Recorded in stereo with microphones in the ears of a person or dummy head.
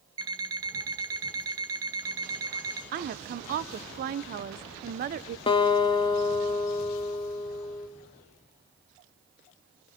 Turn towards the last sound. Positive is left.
turn(degrees=25)  # may be behind; listen again after turning